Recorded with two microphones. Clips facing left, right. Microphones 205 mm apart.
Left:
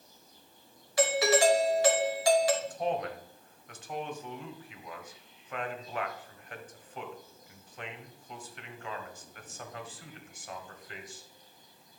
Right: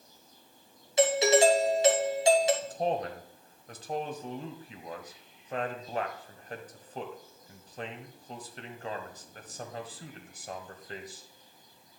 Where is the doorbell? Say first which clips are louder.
Right 3 dB; 25° right (ahead or behind), 1.4 m.